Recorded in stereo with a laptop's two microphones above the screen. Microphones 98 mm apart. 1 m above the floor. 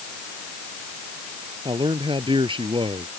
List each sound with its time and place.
1.6 s a man speaking: 60° right (ahead or behind)